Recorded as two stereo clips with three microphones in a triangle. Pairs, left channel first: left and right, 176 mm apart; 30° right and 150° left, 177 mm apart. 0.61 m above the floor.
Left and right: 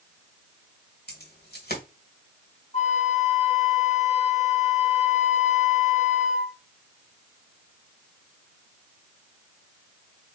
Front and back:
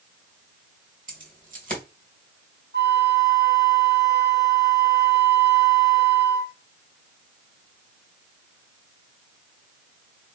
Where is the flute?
140° left, 1.0 m.